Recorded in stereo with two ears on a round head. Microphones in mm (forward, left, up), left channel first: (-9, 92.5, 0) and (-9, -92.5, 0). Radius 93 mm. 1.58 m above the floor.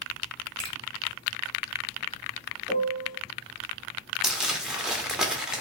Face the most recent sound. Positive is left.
turn(degrees=-5)  # may be behind; listen again after turning